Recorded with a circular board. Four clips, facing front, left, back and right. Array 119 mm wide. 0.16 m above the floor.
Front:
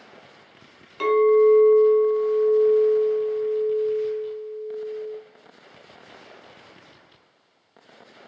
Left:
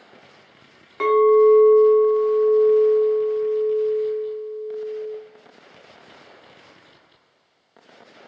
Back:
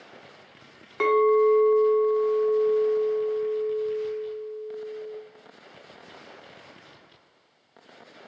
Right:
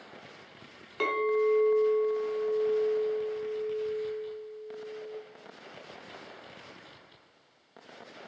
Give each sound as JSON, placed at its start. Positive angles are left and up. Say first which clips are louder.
{"t": 1.0, "sound": "a clink", "louder": "left 13 dB, front 3 dB", "azimuth_deg": 145, "distance_m": 0.7}